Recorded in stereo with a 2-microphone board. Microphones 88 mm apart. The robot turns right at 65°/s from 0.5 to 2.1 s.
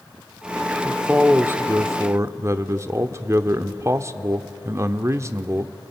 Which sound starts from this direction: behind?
A man speaking, at 0.8 s.